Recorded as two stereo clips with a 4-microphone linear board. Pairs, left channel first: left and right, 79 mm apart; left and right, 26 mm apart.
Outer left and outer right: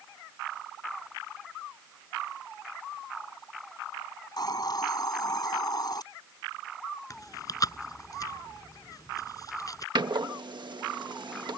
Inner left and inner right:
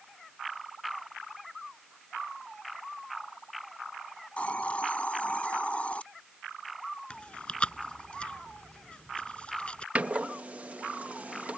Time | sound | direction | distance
4.4 | a hiss | 60° left (ahead or behind) | ?
7.1 | chewing | 50° left (ahead or behind) | ?
9.9 | a door slam | 75° right (ahead or behind) | ?